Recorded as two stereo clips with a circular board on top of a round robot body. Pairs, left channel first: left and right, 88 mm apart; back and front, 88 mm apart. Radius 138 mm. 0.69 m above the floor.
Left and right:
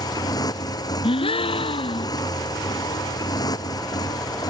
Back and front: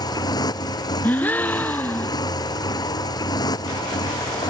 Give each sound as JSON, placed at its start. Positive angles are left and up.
{"t": 0.0, "sound": "a motorcycle", "azimuth_deg": 140}
{"t": 1.0, "sound": "a gasp", "azimuth_deg": 110}